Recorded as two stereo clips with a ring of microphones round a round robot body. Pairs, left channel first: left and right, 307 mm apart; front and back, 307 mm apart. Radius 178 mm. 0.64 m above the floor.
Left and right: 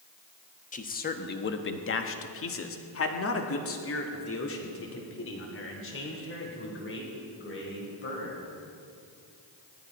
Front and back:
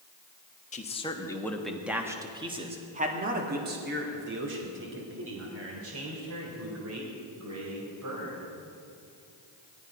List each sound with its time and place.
0.7 s a man speaking: 45° left, 1.3 m; by 8.4 s 140° left, 4.5 m